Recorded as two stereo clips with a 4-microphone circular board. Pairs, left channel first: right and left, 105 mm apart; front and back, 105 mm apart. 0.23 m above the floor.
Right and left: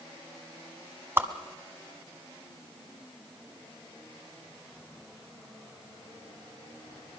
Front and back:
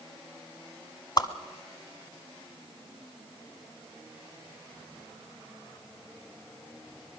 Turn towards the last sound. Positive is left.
turn(degrees=30)